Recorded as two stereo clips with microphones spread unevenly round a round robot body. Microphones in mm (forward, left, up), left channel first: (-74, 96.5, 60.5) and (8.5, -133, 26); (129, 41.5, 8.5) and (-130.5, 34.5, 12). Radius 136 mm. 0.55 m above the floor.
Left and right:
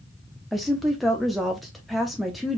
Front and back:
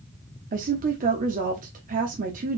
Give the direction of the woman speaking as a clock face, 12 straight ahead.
5 o'clock.